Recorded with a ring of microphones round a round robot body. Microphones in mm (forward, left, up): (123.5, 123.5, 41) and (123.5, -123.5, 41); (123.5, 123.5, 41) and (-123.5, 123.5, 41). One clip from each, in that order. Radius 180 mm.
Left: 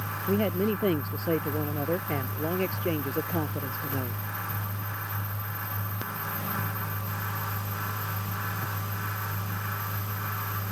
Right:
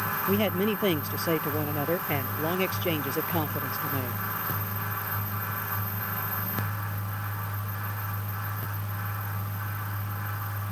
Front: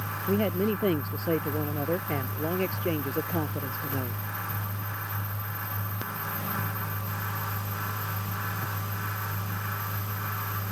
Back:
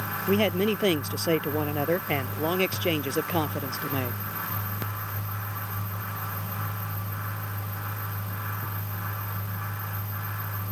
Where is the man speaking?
150° right.